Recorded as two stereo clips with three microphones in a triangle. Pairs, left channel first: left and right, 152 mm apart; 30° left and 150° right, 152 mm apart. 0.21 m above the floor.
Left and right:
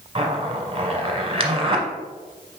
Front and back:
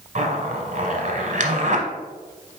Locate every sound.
0.1 s a zipper: 135° right, 0.8 m